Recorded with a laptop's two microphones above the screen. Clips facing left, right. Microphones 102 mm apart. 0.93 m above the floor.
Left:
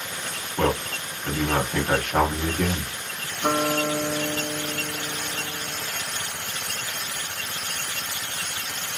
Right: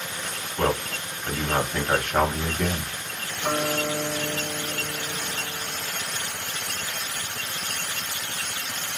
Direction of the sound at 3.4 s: 80° left.